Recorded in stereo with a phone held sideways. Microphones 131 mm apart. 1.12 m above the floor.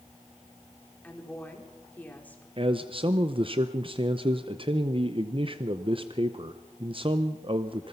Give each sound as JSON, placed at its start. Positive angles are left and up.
{"t": 1.0, "sound": "a woman speaking", "side_deg": 10, "distance_m": 3.5}
{"t": 2.6, "sound": "a man speaking", "side_deg": -45, "distance_m": 0.7}